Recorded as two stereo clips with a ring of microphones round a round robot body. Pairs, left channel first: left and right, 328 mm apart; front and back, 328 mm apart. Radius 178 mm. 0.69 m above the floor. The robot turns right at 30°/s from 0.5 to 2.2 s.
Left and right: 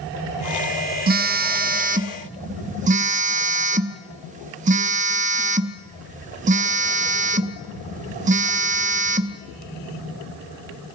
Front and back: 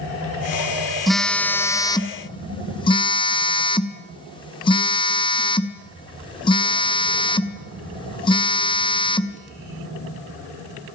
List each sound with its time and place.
1.1 s a phone buzzing: 90° right, 0.6 m; by 9.4 s 55° right, 0.6 m